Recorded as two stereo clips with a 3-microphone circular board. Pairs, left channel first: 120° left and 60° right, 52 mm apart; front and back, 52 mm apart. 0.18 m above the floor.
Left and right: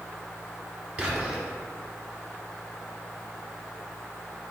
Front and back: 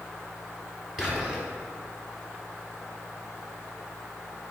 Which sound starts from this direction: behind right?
Whispering, at 1.0 s.